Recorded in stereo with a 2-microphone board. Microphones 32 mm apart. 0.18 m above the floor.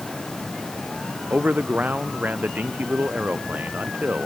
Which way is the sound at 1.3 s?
60° right (ahead or behind).